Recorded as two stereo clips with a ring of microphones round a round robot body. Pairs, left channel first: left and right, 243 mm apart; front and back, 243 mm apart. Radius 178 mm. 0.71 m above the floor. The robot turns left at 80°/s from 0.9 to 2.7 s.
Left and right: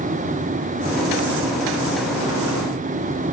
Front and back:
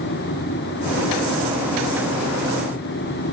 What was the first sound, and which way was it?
Only background noise.